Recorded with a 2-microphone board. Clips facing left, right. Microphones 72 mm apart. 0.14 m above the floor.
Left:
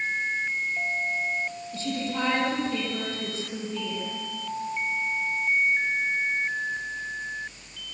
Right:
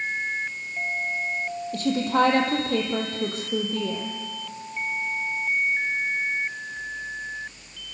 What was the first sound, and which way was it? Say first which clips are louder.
A woman speaking: right 9 dB; 60° right (ahead or behind).